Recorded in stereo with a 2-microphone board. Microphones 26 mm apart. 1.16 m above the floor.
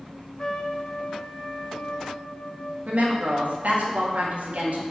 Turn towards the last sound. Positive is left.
turn(degrees=-65)  # may be behind; listen again after turning